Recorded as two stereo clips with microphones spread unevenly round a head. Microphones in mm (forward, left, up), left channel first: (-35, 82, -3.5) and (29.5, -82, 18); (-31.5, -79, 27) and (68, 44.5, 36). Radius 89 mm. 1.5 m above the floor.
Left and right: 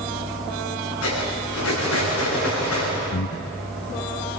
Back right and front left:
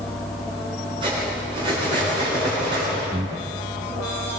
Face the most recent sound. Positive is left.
turn(degrees=120)